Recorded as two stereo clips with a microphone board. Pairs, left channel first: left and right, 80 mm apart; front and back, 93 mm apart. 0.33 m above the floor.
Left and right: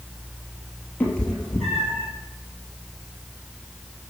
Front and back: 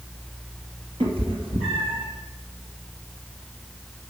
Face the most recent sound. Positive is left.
turn(degrees=-175)